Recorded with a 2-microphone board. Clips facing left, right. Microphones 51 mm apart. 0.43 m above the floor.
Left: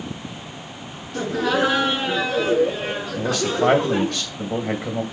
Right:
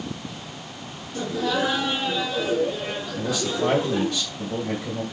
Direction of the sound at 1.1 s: 80° left.